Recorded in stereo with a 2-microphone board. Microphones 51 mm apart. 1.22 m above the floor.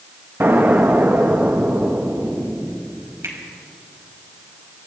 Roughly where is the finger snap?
Right.